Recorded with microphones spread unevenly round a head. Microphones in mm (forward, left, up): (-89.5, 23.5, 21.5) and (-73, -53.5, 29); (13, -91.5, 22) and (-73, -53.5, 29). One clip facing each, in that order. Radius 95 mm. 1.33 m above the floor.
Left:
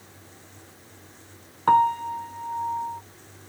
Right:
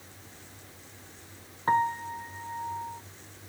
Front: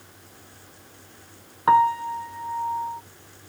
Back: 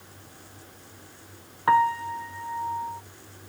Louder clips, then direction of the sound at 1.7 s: Left 7 dB, front 3 dB; 55° left.